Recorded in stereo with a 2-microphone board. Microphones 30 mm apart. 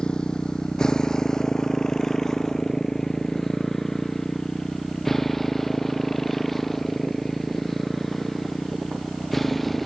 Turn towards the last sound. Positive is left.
turn(degrees=5)  # may be behind; listen again after turning